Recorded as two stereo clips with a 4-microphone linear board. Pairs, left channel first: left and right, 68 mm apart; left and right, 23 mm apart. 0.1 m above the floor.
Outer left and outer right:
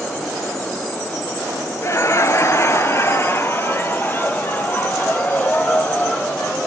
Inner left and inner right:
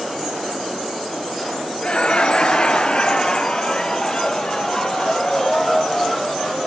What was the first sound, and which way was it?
Laughter, 45° left (ahead or behind).